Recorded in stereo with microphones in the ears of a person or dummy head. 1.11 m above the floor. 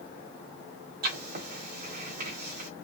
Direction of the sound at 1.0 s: 50° right (ahead or behind).